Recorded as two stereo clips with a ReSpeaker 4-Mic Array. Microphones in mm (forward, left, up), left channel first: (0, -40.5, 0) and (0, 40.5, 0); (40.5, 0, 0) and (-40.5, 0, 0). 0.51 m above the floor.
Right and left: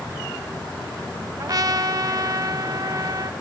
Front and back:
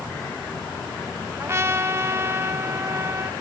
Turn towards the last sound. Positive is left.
turn(degrees=125)